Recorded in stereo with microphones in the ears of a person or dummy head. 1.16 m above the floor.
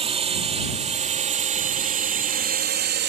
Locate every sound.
0.0 s a drone: 30° right (ahead or behind); by 3.1 s 50° right (ahead or behind)